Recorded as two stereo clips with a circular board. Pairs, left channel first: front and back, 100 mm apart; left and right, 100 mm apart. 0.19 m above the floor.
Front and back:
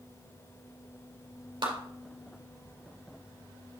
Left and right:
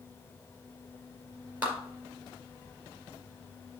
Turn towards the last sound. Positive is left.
turn(degrees=-160)